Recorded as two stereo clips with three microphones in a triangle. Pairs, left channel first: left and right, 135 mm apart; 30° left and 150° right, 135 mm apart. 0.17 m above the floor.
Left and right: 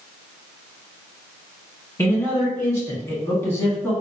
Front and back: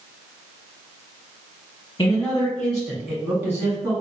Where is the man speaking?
55° left, 1.2 m; by 3.9 s 155° left, 1.5 m.